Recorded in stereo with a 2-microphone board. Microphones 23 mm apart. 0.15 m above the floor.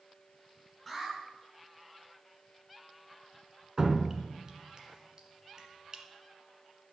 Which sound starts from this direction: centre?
An alarm, at 0.9 s.